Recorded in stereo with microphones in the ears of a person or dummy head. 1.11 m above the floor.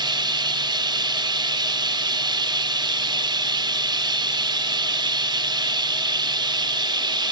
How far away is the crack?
No crack in this recording.